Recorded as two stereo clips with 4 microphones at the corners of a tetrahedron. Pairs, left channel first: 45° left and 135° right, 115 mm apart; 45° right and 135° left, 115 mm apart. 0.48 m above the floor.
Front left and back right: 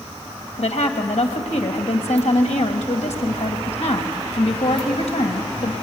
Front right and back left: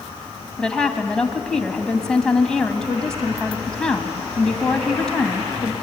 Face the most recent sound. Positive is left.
turn(degrees=40)